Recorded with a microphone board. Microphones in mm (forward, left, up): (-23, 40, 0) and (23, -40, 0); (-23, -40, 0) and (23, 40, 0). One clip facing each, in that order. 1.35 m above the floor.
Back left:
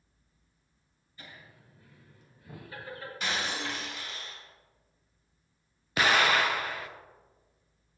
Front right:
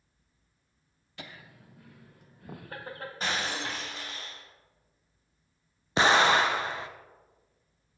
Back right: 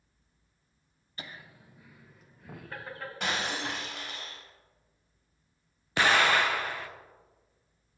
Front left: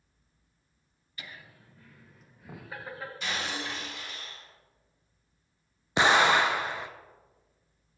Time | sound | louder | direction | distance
1.2 | laughter | front right 4 dB, back right 2 dB | 65° right | 0.9 m
3.2 | breaking glass | front right 1 dB, back right 3 dB | 110° right | 2.5 m
6.0 | an explosion | front right 3 dB, front left 2 dB | 5° right | 0.6 m